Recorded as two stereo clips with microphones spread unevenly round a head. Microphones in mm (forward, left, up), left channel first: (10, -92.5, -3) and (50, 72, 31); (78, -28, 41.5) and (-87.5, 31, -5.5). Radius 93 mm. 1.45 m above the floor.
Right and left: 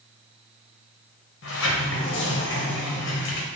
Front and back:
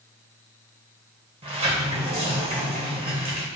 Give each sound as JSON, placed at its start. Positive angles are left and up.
{"t": 1.4, "sound": "a sliding door", "azimuth_deg": -135, "distance_m": 0.8}